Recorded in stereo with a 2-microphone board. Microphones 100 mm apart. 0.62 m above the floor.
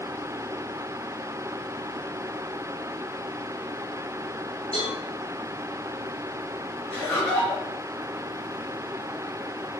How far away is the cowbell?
About 1.9 m.